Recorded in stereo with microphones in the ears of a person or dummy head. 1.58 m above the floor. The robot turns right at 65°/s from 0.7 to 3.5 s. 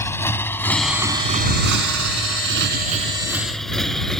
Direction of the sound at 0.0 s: 15° left (ahead or behind).